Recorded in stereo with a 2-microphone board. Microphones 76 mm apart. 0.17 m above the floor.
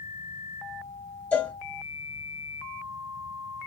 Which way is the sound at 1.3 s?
20° left (ahead or behind).